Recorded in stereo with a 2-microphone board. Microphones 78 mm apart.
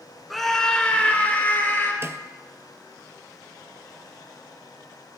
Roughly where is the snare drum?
Right.